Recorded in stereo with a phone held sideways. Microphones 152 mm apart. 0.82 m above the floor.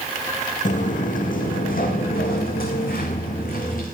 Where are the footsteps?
55° left (ahead or behind), 3 m; by 3.9 s 70° left (ahead or behind), 4 m.